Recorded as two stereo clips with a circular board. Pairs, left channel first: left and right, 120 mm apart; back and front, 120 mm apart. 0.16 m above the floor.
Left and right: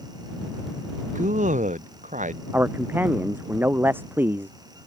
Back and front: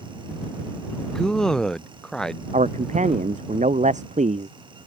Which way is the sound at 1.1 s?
95° right.